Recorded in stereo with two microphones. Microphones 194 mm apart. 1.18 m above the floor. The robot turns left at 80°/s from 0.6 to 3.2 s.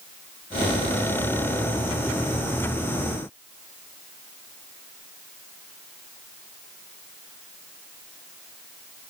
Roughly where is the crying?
No crying in this recording.